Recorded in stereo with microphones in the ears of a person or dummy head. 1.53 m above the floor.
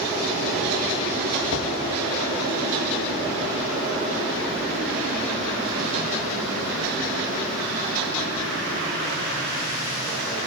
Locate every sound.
1.5 s knocking: 65° left (ahead or behind), 1.9 m